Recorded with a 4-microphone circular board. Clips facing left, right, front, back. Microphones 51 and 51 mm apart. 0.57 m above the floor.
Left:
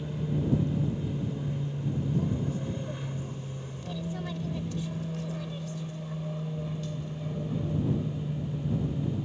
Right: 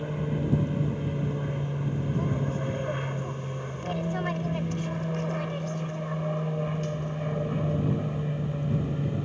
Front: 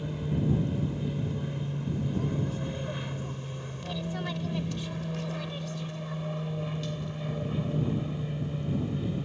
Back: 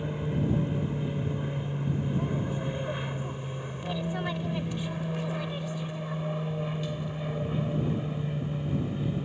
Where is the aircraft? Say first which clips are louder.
Right 2 dB, back 1 dB; 120° right; by 9.2 s 100° right.